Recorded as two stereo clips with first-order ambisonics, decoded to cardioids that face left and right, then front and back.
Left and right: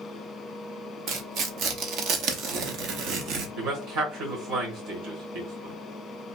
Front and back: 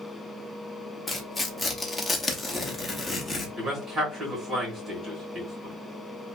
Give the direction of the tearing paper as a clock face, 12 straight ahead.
3 o'clock.